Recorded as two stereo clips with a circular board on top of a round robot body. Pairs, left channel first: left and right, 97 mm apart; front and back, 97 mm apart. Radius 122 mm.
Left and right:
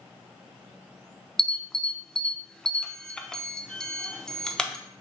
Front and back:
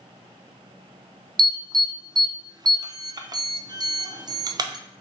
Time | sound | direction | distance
1.4 | an alarm | 170° left | 0.6 m